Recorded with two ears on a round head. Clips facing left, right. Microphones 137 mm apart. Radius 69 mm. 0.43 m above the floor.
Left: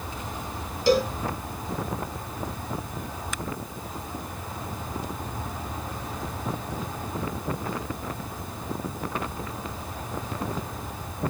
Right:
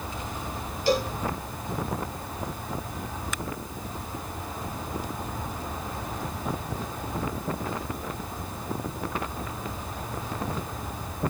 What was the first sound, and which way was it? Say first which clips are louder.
A cowbell: left 4 dB; 65° left (ahead or behind).